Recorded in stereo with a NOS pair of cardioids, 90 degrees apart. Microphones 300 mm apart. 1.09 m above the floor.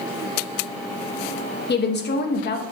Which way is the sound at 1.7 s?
35° left.